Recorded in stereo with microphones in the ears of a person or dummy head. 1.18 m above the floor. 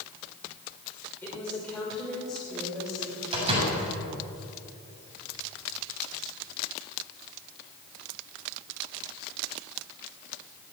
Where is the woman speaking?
10° left (ahead or behind), 4 m; by 3.2 s 5° right (ahead or behind), 5 m.